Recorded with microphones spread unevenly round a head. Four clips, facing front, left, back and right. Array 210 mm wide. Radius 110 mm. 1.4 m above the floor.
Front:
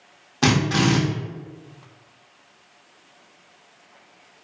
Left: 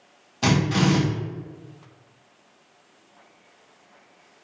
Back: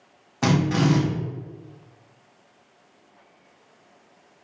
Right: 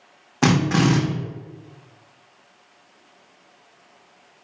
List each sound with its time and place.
0.4 s a drill: 70° right, 0.7 m